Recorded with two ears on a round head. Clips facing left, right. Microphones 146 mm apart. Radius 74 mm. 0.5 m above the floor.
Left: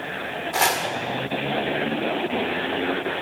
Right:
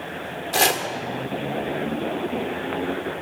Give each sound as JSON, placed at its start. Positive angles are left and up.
{"t": 0.5, "sound": "chopping", "side_deg": -35, "distance_m": 1.7}